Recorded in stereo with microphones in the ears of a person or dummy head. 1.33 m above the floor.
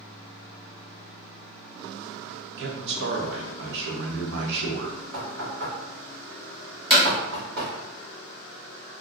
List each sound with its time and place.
2.6 s a man speaking: 65° right (ahead or behind), 0.9 m
5.1 s knocking: 75° right (ahead or behind), 2.0 m
6.9 s hammering: 5° right (ahead or behind), 1.4 m